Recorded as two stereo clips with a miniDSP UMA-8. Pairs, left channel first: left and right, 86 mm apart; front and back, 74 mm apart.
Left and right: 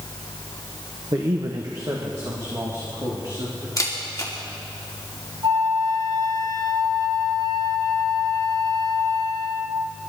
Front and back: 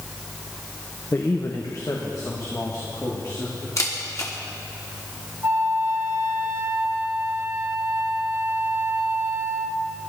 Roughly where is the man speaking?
Ahead right.